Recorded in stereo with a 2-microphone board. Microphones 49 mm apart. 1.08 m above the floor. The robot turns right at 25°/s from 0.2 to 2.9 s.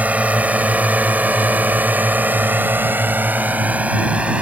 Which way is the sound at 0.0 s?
30° right (ahead or behind).